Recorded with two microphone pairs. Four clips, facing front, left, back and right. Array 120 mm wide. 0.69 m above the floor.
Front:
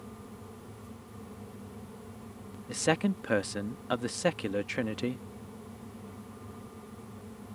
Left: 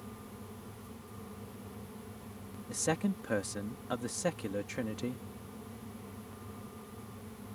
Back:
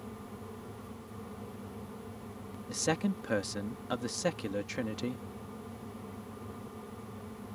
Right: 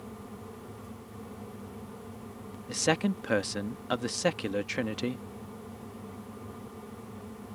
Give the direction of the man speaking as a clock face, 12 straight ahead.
2 o'clock.